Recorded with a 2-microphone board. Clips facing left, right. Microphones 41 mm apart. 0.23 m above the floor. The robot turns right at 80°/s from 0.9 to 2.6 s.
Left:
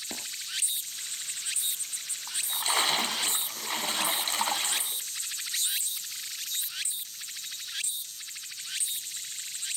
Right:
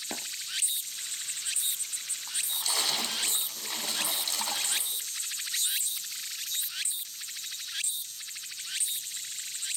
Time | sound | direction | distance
0.1 | tapping | 20° right (ahead or behind) | 2.5 m
2.3 | a splash | 15° left (ahead or behind) | 1.5 m